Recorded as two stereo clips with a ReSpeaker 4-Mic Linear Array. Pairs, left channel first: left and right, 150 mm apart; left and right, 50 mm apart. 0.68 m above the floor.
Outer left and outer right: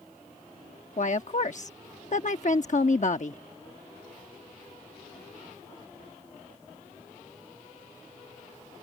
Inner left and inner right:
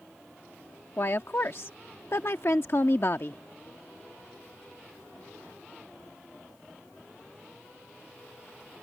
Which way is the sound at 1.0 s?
55° left (ahead or behind).